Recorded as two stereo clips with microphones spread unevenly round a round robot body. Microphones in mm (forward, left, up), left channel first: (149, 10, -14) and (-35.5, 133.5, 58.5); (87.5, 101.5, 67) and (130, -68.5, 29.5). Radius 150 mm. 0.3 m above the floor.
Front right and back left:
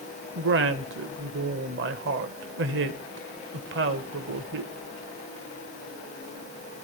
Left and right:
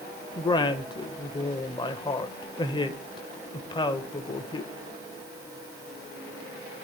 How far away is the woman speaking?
About 1.4 m.